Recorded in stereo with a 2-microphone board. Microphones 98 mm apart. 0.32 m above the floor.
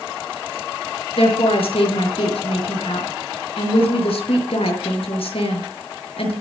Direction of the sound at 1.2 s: 65° left (ahead or behind).